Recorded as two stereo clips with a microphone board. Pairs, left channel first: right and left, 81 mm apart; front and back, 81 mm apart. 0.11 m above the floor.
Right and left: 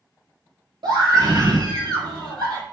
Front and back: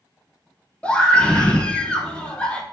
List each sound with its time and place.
0.8 s a scream: 75° left, 3.5 m